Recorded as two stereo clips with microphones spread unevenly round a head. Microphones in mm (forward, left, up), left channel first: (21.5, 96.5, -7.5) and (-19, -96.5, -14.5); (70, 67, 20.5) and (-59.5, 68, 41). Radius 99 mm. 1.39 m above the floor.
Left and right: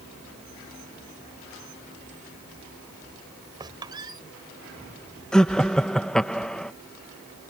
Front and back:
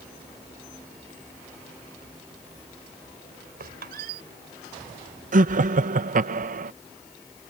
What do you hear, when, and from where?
3.6 s a squeak: 175° right
5.3 s laughter: 165° left